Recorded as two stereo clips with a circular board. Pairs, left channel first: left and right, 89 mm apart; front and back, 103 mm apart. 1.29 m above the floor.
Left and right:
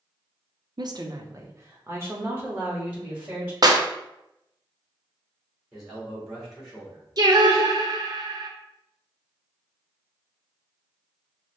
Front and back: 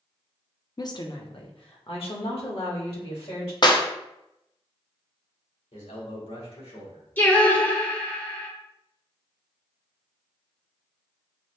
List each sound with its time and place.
0.8 s a woman speaking: 50° right, 0.5 m; by 3.5 s 20° right, 2 m
3.6 s a clap: 45° right, 0.6 m
5.7 s a man speaking: 5° right, 2.5 m
7.2 s singing: 70° right, 0.8 m